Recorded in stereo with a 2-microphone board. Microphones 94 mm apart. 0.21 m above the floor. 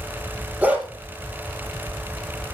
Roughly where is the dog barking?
Centre.